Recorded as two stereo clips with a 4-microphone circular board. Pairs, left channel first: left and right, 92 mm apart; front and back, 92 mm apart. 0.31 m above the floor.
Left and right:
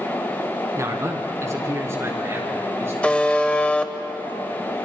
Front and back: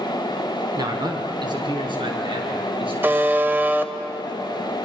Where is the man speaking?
140° right, 2.5 m; by 2.9 s 155° right, 5 m.